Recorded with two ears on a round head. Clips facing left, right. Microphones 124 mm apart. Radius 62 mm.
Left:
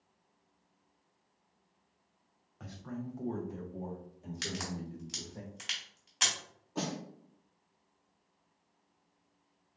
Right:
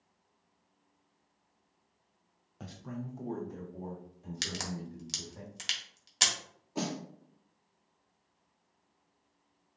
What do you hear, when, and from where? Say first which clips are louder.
2.6 s a man speaking: even; 35° right (ahead or behind), 0.6 m; by 5.4 s 25° left (ahead or behind), 2.5 m
4.4 s a crack: even; 45° right (ahead or behind), 1.5 m
6.8 s a snare drum: right 1 dB; 10° right (ahead or behind), 1.1 m